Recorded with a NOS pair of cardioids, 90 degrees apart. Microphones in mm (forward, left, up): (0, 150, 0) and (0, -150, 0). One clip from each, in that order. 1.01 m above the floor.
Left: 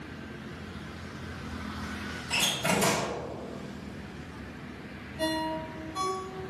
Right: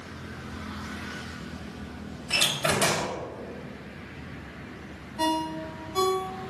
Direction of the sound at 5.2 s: 55° right.